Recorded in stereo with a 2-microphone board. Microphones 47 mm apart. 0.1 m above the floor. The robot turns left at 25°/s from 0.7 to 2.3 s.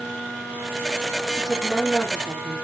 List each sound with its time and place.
1.3 s a woman speaking: 5° left (ahead or behind), 3.5 m; by 2.5 s 15° right (ahead or behind), 3.5 m